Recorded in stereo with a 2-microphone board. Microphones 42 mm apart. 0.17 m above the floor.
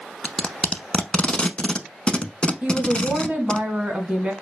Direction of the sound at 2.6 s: 30° right (ahead or behind).